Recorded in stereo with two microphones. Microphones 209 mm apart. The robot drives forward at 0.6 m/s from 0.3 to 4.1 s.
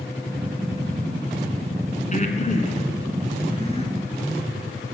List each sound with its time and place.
2.1 s breathing: 35° left (ahead or behind), 1.8 m; by 3.9 s 25° left (ahead or behind), 2.5 m